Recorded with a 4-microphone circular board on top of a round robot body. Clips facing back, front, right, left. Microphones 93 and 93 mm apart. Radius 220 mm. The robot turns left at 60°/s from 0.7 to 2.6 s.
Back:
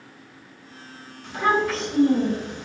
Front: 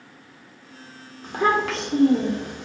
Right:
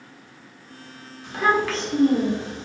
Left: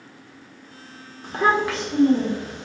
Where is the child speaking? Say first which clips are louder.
Even, left 1 dB; 45° left, 1.1 m; by 2.7 s 35° right, 1.1 m.